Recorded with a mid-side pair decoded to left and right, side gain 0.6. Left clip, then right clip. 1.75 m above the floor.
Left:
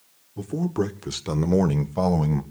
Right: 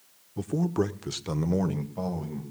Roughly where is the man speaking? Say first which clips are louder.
Left 1 dB; ahead.